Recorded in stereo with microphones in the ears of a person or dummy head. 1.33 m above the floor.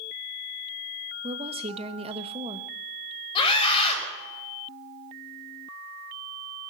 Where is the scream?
30° left (ahead or behind), 5.5 m.